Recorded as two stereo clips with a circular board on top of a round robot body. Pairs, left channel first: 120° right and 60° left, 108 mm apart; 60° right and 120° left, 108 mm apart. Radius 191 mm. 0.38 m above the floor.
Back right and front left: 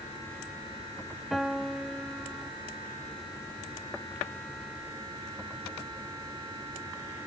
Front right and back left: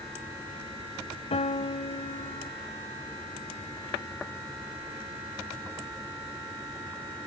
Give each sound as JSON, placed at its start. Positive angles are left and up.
{"t": 1.3, "sound": "a piano", "azimuth_deg": -30}